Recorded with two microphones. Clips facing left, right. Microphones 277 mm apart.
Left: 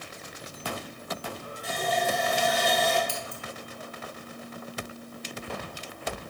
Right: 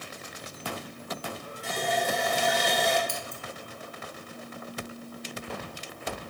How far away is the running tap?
About 2.0 m.